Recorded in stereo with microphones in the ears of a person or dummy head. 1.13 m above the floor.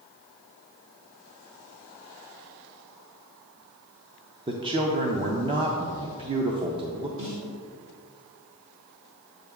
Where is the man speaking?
20° right (ahead or behind), 0.5 m.